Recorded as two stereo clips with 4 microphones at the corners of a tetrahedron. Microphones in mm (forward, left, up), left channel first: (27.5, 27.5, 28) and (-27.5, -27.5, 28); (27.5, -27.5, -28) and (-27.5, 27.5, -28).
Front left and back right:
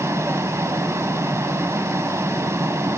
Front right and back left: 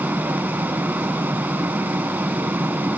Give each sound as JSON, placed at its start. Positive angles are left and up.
{"t": 0.0, "sound": "running water", "azimuth_deg": -170, "distance_m": 0.8}